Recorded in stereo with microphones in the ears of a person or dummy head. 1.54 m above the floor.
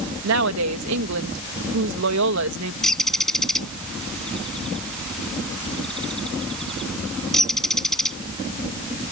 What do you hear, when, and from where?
0.2 s a woman speaking: 70° right (ahead or behind)
2.8 s a bird: 5° left (ahead or behind)